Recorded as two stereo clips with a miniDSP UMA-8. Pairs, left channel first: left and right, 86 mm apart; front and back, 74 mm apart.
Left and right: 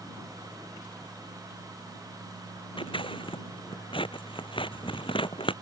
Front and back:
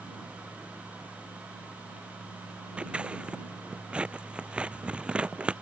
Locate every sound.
2.8 s scissors: 105° left